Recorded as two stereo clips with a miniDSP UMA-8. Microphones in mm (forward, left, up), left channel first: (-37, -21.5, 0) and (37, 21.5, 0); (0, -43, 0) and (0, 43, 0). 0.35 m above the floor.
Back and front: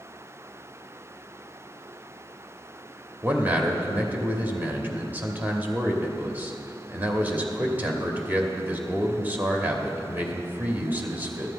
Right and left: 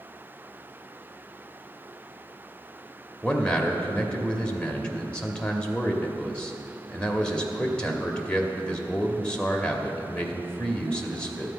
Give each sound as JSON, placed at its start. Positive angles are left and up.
{"t": 3.2, "sound": "a man speaking", "azimuth_deg": -20, "distance_m": 1.1}